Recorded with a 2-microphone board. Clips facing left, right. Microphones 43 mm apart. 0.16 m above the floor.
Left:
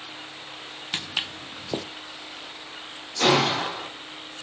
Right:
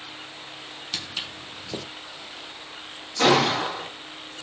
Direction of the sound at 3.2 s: 15° right (ahead or behind).